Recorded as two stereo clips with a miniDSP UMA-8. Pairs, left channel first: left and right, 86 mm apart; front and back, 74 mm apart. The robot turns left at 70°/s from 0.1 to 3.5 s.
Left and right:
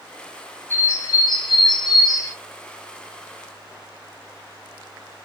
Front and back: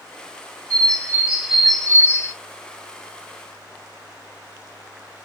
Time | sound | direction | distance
0.7 | a bird | 155° left | 0.8 m